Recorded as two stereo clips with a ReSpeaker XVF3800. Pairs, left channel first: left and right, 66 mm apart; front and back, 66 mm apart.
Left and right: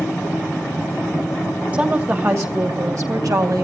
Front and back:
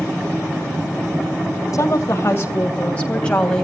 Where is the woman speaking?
30° right, 2.5 m; by 3.6 s 80° right, 3.5 m.